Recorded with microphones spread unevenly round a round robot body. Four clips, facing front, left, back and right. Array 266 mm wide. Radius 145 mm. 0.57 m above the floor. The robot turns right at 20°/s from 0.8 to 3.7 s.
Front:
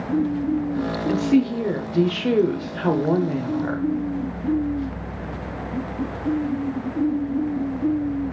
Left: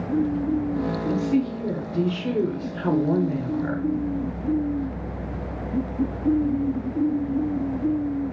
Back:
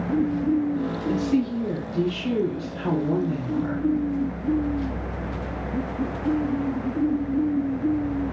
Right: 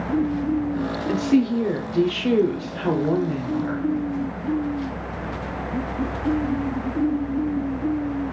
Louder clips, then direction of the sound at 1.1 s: Right 5 dB, front 4 dB; 55° right.